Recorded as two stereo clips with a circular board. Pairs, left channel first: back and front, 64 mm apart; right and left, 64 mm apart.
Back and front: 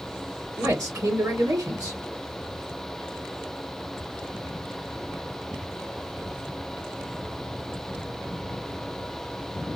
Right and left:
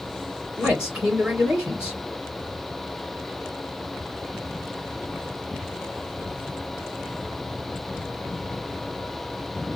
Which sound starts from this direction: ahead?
A man speaking, at 0.6 s.